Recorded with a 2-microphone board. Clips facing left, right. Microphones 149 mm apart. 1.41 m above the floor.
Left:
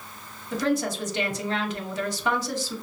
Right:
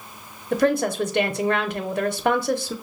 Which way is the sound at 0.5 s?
60° right (ahead or behind).